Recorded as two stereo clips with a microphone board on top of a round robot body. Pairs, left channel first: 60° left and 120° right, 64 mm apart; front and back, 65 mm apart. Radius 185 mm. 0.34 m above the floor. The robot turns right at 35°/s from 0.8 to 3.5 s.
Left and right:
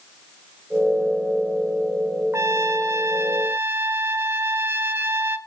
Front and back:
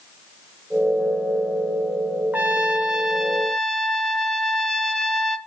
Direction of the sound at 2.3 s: 125° right.